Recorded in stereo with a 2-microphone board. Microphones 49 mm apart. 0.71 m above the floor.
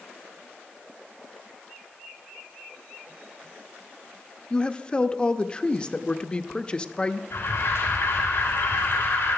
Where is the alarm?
55° left (ahead or behind), 5 m.